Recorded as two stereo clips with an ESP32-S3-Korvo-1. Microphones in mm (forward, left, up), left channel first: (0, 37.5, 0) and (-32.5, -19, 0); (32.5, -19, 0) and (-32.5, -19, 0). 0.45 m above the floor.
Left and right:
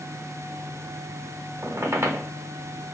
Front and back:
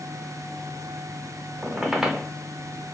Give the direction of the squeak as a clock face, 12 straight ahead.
3 o'clock.